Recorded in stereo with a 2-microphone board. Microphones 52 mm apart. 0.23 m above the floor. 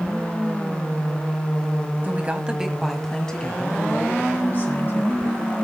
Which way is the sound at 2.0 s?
35° right (ahead or behind).